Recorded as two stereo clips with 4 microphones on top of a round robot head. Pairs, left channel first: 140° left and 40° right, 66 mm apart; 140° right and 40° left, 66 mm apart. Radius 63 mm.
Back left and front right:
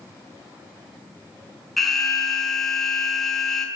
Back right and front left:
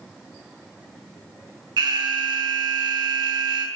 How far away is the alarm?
About 5 m.